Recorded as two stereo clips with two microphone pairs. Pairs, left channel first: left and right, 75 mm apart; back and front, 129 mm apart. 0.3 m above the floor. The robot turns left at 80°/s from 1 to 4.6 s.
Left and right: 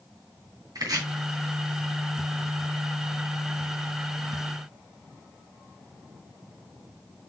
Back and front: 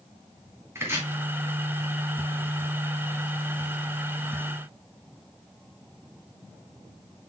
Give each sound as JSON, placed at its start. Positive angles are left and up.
{"t": 0.8, "sound": "chopping", "azimuth_deg": -70, "distance_m": 2.5}